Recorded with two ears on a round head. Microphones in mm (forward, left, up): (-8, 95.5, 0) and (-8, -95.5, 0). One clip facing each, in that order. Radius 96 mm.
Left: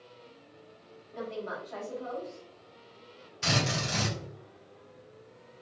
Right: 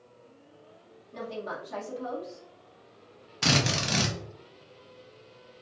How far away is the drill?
About 1.0 m.